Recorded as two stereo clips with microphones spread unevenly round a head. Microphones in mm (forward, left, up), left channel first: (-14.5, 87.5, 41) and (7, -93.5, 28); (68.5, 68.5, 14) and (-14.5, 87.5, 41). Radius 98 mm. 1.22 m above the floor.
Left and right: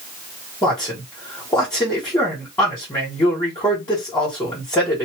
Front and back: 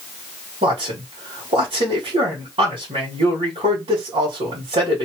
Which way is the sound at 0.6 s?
170° left.